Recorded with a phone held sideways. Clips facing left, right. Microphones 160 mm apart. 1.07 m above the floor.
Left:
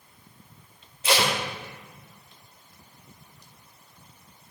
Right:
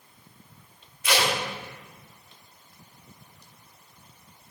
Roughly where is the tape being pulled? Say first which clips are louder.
Left 1 dB; left.